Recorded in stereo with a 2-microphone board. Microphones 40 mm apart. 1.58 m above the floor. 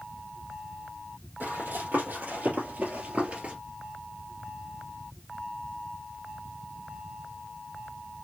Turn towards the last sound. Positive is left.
turn(degrees=-30)  # may be behind; listen again after turning